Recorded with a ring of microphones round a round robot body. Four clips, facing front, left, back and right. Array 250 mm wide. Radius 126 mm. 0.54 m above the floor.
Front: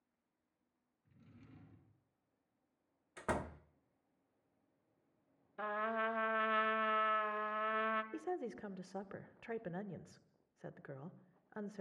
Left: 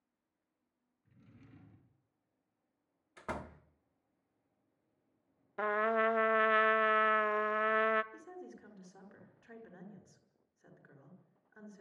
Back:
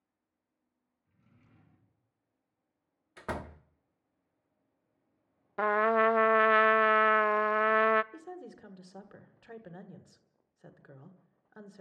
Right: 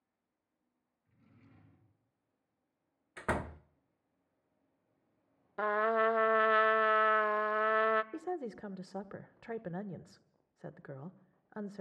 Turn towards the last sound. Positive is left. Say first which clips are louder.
# right 11 dB, front 3 dB
turn(degrees=-75)